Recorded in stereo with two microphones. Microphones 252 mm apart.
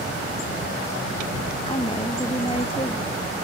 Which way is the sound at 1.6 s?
20° left (ahead or behind).